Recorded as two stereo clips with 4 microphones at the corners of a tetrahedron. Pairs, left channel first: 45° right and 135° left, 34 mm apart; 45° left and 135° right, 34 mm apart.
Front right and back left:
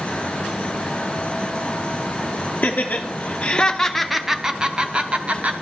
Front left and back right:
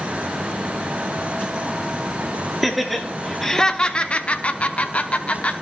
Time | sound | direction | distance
2.6 | laughter | 50° right | 0.9 m